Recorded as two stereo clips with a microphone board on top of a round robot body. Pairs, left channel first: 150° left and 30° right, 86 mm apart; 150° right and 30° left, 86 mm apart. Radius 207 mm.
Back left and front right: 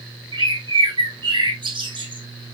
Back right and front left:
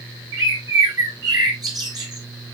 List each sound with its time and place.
0.3 s a bird: 10° right, 3.5 m